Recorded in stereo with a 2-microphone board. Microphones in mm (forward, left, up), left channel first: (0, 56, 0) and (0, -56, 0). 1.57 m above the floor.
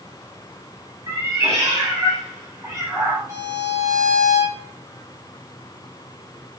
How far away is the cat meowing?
About 2 m.